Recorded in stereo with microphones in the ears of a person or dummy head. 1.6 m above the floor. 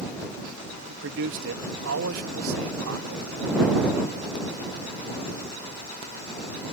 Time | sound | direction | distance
0.9 | a man speaking | 60° right (ahead or behind) | ?